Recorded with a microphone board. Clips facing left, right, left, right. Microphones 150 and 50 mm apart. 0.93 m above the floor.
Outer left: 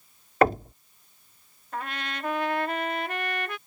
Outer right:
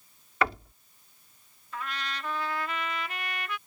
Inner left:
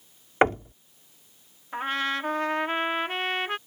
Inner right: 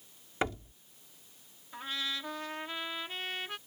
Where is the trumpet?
55° left (ahead or behind).